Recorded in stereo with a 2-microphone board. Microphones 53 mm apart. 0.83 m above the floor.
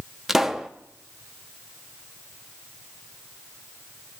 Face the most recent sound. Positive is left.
turn(degrees=-5)  # may be behind; listen again after turning